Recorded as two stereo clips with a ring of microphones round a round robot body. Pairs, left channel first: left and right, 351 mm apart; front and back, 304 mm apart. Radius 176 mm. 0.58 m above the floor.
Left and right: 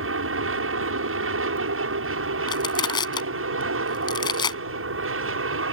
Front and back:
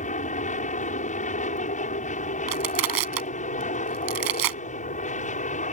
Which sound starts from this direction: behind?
Crushing, at 2.5 s.